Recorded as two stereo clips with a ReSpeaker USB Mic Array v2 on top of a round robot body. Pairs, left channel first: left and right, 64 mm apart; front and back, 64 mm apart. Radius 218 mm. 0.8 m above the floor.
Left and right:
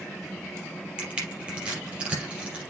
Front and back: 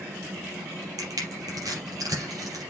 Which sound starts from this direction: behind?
Crushing, at 1.0 s.